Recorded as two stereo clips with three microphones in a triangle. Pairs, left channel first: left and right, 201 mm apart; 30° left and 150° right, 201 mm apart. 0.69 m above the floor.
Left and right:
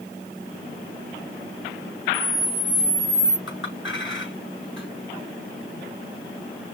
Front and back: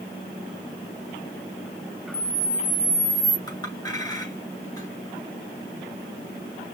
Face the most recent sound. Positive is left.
turn(degrees=100)